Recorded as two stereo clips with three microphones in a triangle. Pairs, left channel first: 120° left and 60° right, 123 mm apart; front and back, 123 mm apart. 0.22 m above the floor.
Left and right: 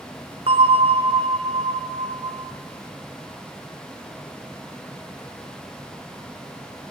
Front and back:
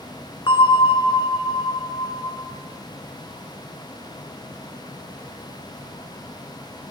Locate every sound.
0.5 s a bell: 40° right, 1.1 m